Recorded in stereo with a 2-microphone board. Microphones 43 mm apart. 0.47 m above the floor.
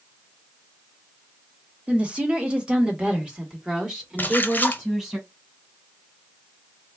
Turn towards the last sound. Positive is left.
turn(degrees=40)  # may be behind; listen again after turning